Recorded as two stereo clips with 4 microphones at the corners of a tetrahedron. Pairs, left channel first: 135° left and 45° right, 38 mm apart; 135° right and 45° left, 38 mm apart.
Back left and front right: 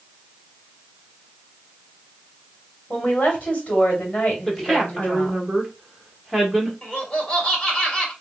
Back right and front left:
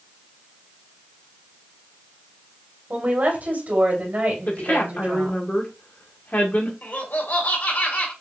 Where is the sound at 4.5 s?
140° right, 1.5 m.